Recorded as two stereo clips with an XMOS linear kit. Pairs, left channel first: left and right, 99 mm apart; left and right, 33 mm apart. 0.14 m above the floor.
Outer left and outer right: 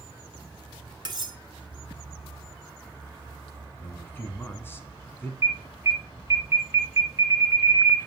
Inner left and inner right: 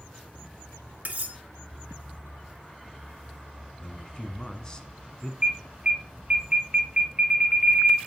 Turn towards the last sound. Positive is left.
turn(degrees=-30)  # may be behind; listen again after turning